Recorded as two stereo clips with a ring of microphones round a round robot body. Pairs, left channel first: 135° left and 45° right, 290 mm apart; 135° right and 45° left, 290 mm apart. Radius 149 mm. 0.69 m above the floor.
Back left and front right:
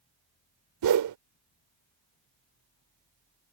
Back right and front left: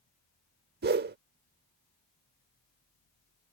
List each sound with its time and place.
0.8 s a whoosh: 15° right